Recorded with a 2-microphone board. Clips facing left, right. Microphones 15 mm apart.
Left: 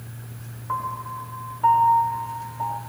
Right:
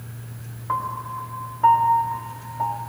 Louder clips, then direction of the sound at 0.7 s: Right 2 dB; 20° right (ahead or behind).